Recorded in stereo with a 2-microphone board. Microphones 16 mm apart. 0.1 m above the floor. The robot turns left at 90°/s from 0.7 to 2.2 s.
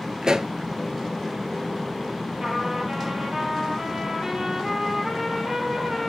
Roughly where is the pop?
Right.